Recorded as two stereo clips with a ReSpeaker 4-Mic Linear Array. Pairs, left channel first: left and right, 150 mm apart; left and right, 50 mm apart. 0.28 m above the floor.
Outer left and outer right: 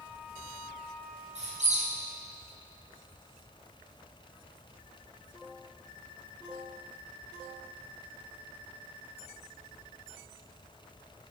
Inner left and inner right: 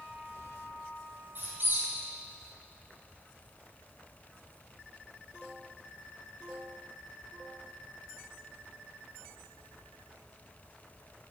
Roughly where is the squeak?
Right.